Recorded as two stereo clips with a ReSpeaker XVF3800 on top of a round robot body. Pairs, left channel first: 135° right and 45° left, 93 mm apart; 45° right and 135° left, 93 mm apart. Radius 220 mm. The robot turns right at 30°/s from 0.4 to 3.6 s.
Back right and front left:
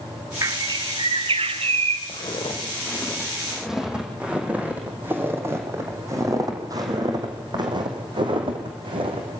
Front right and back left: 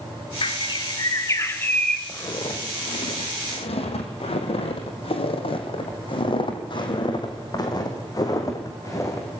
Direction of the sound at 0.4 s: 10° right.